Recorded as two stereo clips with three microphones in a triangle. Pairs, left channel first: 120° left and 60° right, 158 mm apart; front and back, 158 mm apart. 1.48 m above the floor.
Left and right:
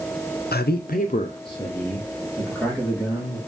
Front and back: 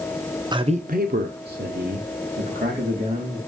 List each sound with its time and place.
0.5 s a man speaking: 115° left, 0.7 m; by 3.4 s 150° right, 2.5 m